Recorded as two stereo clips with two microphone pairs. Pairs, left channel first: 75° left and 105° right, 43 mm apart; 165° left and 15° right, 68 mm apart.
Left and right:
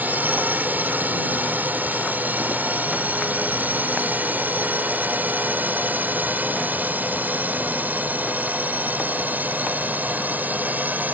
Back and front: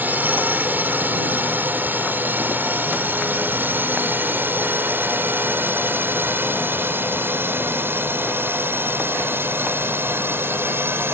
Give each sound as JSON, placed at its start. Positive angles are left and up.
{"t": 0.0, "sound": "a drone", "azimuth_deg": -75}